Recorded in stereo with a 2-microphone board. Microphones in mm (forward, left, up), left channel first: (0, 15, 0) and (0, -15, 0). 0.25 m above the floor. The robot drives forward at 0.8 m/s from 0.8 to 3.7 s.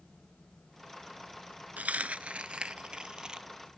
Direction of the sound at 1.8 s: 65° right (ahead or behind).